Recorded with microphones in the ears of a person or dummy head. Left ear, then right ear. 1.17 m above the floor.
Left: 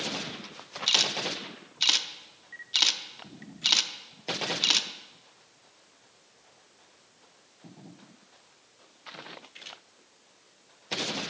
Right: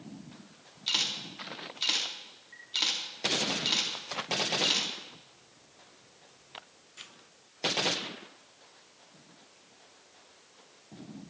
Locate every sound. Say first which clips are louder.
0.9 s a camera shutter: left 5 dB; 25° left (ahead or behind), 0.6 m